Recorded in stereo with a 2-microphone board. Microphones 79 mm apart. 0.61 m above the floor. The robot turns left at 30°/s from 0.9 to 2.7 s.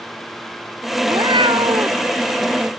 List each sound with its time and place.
1.1 s a cat meowing: 70° right (ahead or behind); by 2.0 s 85° right